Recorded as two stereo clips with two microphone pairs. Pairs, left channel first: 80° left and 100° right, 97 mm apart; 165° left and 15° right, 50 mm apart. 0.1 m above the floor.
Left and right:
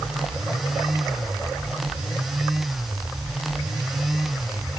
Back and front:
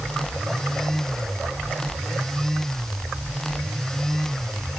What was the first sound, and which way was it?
Only background noise.